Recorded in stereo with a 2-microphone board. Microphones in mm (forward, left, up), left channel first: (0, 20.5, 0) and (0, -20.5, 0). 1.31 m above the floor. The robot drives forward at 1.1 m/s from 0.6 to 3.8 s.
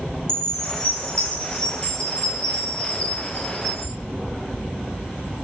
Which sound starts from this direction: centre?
A chime, at 0.3 s.